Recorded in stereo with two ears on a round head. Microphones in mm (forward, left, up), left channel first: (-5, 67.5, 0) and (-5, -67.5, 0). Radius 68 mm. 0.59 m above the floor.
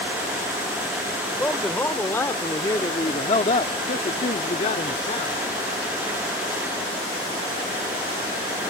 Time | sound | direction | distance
1.3 | a man speaking | 5° left (ahead or behind) | ?